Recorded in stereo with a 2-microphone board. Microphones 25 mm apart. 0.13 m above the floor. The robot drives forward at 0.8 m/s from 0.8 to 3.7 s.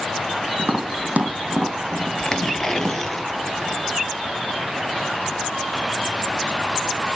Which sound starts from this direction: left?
Tearing paper, at 2.2 s.